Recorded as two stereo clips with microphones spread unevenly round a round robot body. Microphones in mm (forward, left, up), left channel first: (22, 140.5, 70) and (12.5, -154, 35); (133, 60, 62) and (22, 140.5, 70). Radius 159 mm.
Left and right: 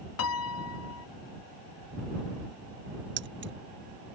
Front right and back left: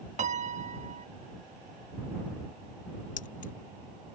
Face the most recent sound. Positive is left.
turn(degrees=-45)